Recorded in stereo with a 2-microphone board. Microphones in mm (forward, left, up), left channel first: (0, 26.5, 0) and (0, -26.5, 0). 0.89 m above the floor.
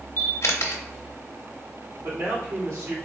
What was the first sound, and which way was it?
A camera shutter, 65° left (ahead or behind).